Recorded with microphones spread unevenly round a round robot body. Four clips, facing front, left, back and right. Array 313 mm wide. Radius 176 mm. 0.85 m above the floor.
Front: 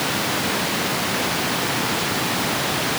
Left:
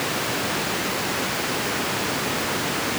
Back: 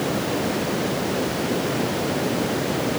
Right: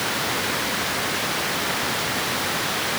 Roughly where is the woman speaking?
I don't hear a woman speaking.